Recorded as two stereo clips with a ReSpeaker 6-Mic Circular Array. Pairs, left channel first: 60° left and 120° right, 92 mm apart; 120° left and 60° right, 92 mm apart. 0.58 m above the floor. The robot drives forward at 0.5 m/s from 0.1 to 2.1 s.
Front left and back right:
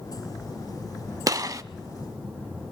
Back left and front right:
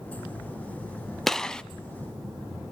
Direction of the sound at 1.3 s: 155° right.